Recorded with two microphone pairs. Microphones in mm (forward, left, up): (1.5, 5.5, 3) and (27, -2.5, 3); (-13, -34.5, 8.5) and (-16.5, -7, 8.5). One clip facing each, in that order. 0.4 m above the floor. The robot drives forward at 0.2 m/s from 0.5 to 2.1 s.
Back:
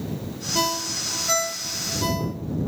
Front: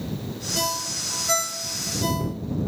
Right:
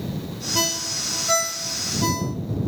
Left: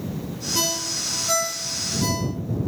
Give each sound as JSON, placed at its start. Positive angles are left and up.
{"t": 0.6, "sound": "a ringtone", "azimuth_deg": -140, "distance_m": 0.7}